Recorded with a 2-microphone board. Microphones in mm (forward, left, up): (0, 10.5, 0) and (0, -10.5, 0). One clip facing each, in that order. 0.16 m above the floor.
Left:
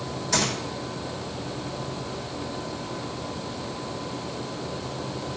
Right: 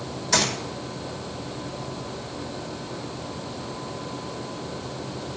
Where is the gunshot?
15° right (ahead or behind), 5.5 m.